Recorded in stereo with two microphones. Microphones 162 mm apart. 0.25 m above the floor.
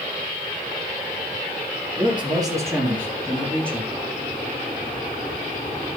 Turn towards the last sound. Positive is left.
turn(degrees=10)  # may be behind; listen again after turning